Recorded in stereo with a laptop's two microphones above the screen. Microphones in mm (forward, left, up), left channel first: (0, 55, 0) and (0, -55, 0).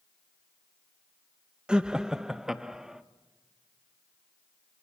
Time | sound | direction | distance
1.7 | laughter | 10° right (ahead or behind) | 0.7 m